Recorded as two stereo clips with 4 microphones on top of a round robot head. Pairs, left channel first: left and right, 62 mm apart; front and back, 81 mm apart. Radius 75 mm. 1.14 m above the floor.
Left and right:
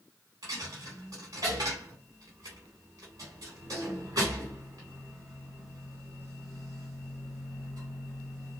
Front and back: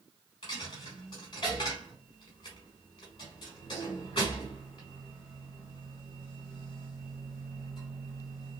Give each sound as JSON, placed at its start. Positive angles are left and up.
{"t": 0.4, "sound": "a dropped coin", "azimuth_deg": -40, "distance_m": 1.0}